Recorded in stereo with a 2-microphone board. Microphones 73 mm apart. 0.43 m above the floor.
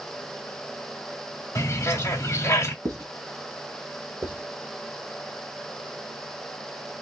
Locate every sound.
1.6 s a bird: 35° left (ahead or behind), 0.9 m
2.9 s writing: 65° right (ahead or behind), 1.0 m
4.2 s writing: 30° right (ahead or behind), 1.9 m